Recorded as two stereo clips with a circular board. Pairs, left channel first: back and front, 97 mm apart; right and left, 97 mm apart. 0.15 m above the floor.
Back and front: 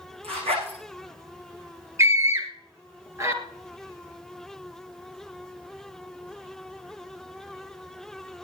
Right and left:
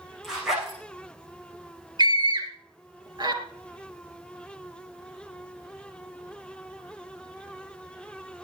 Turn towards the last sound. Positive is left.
turn(degrees=55)